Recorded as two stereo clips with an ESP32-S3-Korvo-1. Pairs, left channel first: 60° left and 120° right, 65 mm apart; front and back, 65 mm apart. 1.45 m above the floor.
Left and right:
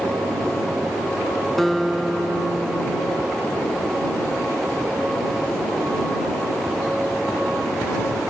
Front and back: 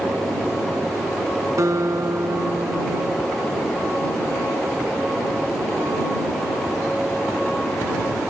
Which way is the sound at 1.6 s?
145° left.